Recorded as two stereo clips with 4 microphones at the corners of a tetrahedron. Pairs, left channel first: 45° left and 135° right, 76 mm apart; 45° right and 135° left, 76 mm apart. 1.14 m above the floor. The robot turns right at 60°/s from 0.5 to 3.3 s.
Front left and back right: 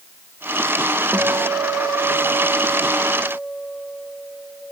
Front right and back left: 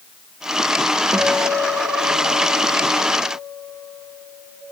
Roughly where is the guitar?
Behind.